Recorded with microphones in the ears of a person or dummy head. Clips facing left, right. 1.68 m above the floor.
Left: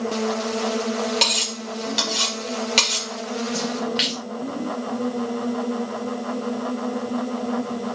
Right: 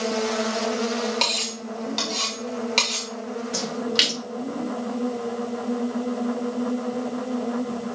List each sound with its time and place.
1.2 s cutlery clinking: 15° left (ahead or behind), 1.5 m
3.5 s a splash: 65° right (ahead or behind), 2.5 m